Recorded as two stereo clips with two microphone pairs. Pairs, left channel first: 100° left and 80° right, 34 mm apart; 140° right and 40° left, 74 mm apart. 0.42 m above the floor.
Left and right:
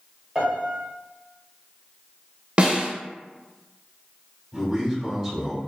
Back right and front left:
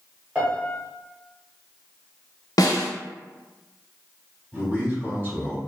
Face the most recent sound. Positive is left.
turn(degrees=15)